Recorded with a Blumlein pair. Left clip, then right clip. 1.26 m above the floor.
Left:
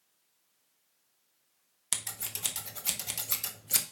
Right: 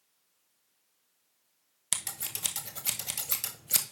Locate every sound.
1.9 s scissors: 5° right, 0.8 m